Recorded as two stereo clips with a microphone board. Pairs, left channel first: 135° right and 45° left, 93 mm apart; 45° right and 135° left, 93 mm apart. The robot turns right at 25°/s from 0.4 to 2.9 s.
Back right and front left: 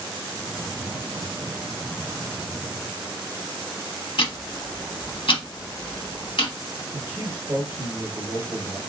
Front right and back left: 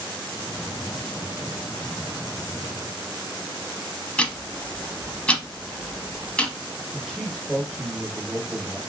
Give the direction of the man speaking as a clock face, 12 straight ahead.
11 o'clock.